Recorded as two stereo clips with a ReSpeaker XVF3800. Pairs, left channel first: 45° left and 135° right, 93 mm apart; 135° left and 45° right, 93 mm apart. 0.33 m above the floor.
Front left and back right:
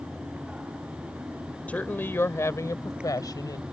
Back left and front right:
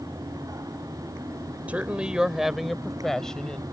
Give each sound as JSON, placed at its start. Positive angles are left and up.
{"t": 1.7, "sound": "a woman speaking", "azimuth_deg": 0}